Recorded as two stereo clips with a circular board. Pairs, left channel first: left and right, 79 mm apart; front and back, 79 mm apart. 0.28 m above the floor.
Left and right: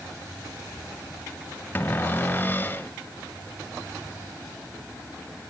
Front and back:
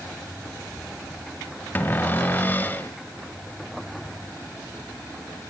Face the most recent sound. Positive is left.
turn(degrees=45)